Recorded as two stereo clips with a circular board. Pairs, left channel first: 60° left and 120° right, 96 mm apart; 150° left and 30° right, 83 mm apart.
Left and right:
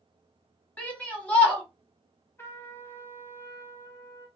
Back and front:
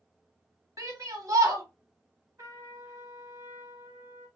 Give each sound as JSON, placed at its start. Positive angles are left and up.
{"t": 0.8, "sound": "a shout", "azimuth_deg": -10, "distance_m": 1.6}
{"t": 2.4, "sound": "a trumpet", "azimuth_deg": 5, "distance_m": 0.9}